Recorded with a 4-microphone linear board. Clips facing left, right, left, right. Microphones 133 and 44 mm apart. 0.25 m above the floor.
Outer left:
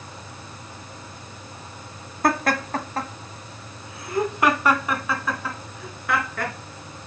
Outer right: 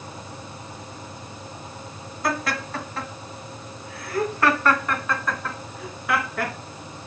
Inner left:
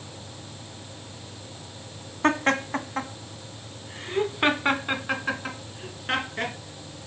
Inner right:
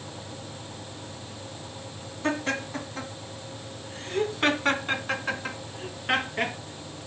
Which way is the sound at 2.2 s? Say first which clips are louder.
Outer left 5 dB, inner left 6 dB; 55° left (ahead or behind).